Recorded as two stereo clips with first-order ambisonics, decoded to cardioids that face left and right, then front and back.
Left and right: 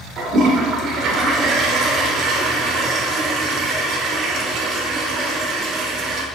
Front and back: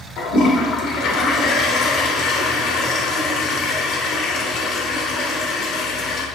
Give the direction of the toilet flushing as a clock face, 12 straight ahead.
1 o'clock.